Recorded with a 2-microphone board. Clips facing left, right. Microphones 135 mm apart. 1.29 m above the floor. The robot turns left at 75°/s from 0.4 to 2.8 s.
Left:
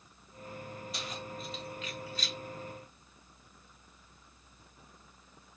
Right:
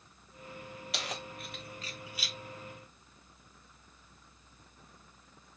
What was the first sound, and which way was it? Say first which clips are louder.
Keys jangling: right 3 dB; 75° right (ahead or behind).